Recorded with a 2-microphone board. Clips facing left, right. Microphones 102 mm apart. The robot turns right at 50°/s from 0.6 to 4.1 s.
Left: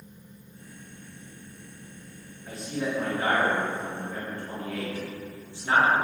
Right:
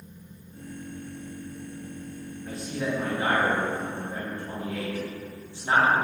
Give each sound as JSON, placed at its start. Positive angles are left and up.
{"t": 2.5, "sound": "a man speaking", "side_deg": 5, "distance_m": 0.9}